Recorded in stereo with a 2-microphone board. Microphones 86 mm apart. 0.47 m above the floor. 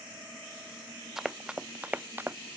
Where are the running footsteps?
5° right (ahead or behind); by 2.4 s 25° right (ahead or behind).